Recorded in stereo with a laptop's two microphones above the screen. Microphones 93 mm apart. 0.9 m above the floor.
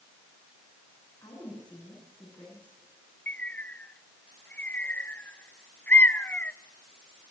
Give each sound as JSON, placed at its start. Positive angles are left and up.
{"t": 1.2, "sound": "a woman speaking", "side_deg": 55, "distance_m": 9.5}
{"t": 3.3, "sound": "a bird", "side_deg": 20, "distance_m": 0.8}